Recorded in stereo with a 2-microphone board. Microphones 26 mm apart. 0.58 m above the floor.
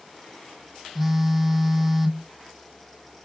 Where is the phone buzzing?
5° right (ahead or behind), 0.6 m.